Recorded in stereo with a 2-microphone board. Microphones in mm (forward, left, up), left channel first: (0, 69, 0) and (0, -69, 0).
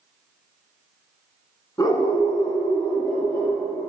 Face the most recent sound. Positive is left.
turn(degrees=25)  # may be behind; listen again after turning